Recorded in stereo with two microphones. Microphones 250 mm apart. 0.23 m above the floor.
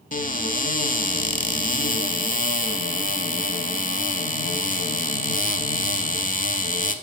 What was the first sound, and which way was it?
A cupboard door, 35° left (ahead or behind).